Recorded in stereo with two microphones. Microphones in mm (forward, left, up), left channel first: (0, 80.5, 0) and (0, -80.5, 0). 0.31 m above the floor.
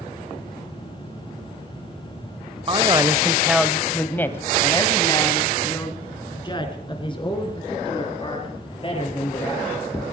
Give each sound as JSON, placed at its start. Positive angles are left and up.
{"t": 2.7, "sound": "a man speaking", "side_deg": -30, "distance_m": 1.0}